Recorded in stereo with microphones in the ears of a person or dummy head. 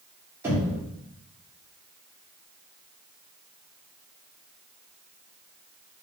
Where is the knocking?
15° right (ahead or behind), 1.7 m.